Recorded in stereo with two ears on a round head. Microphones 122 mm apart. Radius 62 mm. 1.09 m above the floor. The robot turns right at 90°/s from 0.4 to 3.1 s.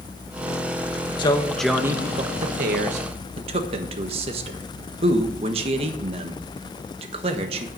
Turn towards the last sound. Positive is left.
turn(degrees=-40)  # may be behind; listen again after turning